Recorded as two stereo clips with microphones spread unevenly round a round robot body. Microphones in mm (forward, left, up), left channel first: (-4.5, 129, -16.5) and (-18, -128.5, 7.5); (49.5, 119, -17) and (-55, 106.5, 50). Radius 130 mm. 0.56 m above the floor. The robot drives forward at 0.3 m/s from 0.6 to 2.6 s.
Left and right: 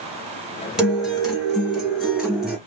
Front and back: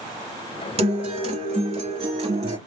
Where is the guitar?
Straight behind, 2.5 m.